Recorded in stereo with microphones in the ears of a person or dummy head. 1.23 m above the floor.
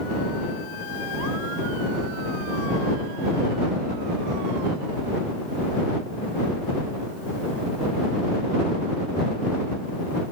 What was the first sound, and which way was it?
Only background noise.